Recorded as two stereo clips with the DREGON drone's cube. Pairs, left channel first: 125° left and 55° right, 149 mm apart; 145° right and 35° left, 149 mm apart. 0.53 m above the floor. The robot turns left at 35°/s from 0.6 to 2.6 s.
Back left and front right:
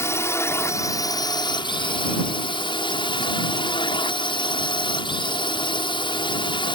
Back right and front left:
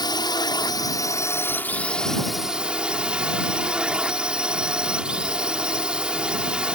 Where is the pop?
No pop in this recording.